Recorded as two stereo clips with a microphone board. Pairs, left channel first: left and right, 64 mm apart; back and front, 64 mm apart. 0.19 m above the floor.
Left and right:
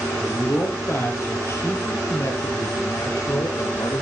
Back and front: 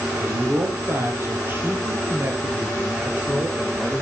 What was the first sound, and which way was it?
A man speaking, 40° left.